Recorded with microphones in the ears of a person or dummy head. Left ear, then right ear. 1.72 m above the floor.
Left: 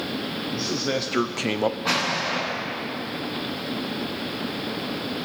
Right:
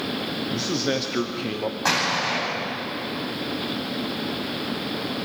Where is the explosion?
50° right (ahead or behind), 8.5 m.